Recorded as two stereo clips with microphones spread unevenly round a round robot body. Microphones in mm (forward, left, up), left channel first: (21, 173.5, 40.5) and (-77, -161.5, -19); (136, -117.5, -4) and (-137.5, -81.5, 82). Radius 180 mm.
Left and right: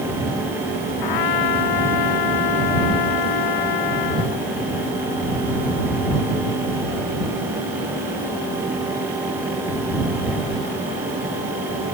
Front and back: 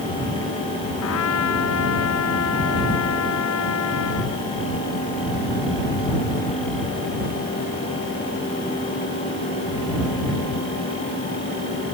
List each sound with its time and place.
1.0 s a trumpet: 40° left